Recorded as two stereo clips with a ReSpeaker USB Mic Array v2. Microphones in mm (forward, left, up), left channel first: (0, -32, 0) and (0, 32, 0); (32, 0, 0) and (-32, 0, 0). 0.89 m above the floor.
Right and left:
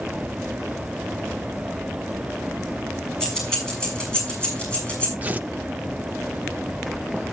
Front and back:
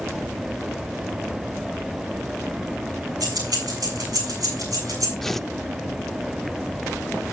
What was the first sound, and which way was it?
Keys jangling, 170° right.